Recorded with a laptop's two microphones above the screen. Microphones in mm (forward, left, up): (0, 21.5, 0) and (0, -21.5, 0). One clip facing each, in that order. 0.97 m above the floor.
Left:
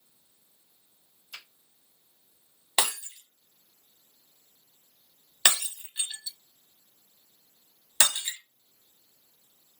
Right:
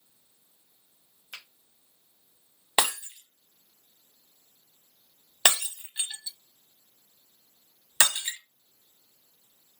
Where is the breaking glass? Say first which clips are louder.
Right 2 dB; 20° right (ahead or behind), 0.9 m.